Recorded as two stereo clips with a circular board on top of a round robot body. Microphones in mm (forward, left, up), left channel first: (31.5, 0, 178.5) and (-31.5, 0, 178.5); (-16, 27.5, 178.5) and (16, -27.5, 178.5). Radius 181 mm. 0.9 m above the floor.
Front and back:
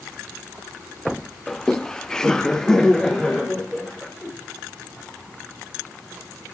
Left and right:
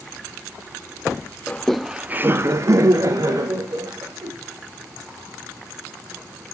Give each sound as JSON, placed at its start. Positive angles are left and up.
{"t": 1.5, "sound": "laughter", "azimuth_deg": 75, "distance_m": 0.9}